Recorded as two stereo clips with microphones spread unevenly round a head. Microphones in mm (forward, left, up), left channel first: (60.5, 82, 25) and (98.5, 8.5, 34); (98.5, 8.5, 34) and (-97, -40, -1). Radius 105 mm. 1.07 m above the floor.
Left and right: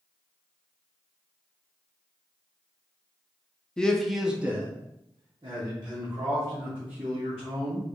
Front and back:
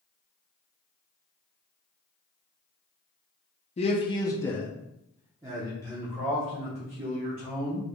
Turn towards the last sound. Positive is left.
turn(degrees=-110)